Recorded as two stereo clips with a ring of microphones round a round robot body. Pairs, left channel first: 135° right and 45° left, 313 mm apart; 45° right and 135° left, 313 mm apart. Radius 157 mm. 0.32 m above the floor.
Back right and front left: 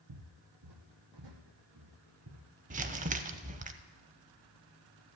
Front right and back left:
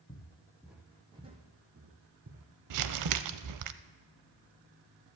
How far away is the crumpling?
About 0.6 m.